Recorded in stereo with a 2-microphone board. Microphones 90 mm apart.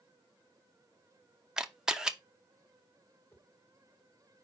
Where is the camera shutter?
10° right (ahead or behind), 0.5 m.